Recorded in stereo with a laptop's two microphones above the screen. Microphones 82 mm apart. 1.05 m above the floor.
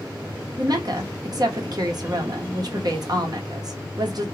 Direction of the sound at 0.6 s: 55° right (ahead or behind).